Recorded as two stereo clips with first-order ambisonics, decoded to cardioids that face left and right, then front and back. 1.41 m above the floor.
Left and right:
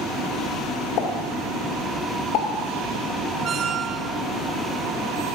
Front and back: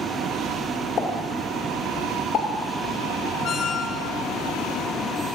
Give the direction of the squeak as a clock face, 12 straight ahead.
1 o'clock.